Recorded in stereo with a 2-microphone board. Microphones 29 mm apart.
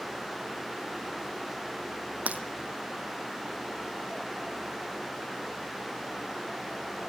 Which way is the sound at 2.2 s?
60° right (ahead or behind).